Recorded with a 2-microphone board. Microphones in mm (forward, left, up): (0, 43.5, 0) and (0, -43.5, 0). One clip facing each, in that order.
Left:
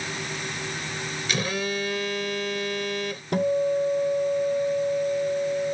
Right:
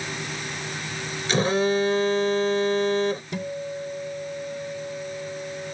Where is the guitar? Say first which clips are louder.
Left 9 dB; 50° left (ahead or behind).